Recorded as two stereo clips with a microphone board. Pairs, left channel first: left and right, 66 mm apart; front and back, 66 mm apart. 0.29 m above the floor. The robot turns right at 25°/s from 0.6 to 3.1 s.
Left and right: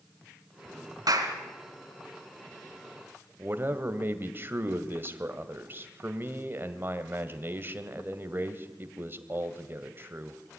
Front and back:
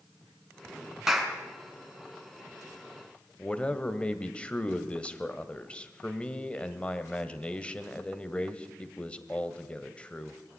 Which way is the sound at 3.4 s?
60° right.